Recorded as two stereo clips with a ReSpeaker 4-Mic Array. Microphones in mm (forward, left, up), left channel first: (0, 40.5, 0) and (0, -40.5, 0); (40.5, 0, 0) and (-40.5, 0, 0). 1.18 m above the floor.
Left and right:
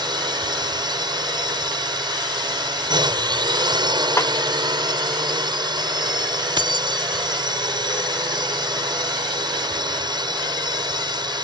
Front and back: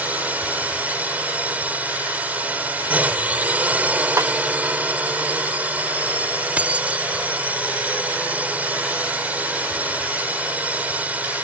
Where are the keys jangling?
105° right.